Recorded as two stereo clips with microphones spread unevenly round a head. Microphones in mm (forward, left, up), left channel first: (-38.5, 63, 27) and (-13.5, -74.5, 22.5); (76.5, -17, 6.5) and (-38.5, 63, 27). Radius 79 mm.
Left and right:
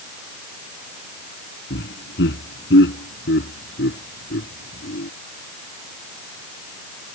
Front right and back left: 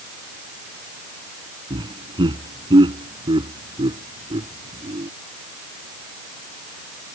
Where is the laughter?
90° left.